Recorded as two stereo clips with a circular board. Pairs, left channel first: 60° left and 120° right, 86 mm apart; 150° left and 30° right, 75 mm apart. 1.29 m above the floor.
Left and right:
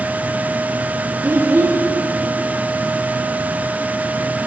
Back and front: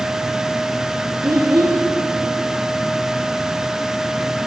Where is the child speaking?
70° right, 1.0 m.